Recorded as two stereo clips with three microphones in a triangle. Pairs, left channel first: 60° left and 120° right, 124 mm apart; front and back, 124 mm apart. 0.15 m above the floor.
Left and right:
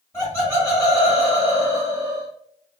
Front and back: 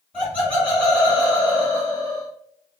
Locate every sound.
0.1 s laughter: 55° left, 1.7 m